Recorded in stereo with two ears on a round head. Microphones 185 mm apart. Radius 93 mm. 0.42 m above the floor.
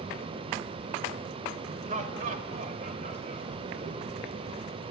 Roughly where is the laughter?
Right.